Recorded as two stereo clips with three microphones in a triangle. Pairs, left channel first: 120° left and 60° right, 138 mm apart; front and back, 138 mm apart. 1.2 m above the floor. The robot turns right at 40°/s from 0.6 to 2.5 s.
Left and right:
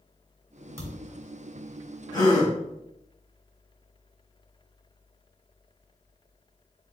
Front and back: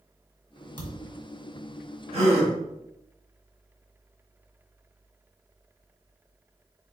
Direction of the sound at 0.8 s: 170° left.